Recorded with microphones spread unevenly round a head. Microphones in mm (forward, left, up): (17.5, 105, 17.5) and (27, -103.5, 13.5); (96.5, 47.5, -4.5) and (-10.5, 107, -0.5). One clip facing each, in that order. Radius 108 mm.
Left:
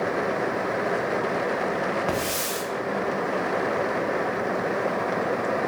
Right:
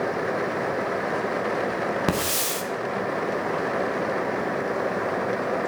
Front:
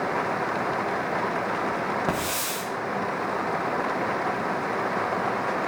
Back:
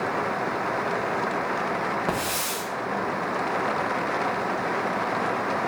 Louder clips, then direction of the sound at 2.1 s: Right 1 dB, even; 115° right.